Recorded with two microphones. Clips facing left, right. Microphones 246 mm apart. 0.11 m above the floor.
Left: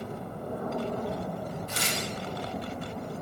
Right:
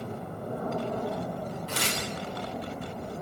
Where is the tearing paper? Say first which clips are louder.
Right 1 dB; 80° right, 9.5 m.